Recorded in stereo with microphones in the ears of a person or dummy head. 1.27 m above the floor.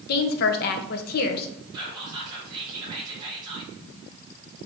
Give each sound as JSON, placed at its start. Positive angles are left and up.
{"t": 0.1, "sound": "a woman speaking", "side_deg": 55, "distance_m": 0.7}
{"t": 1.7, "sound": "whispering", "side_deg": -20, "distance_m": 0.7}